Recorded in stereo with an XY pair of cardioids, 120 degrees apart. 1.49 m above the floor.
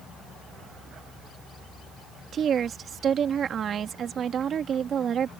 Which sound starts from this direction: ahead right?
A woman speaking, at 2.3 s.